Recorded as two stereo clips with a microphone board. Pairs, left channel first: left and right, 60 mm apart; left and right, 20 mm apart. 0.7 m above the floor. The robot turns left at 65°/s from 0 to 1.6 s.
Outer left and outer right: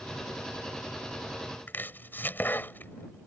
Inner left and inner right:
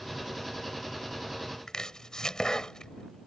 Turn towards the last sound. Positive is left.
turn(degrees=35)  # may be behind; listen again after turning